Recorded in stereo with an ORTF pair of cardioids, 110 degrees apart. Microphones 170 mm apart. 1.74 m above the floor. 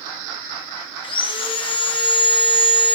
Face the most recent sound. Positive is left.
turn(degrees=30)